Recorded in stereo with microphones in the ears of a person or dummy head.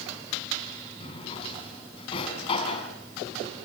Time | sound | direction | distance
1.0 | a drawer | 30° left (ahead or behind) | 5 m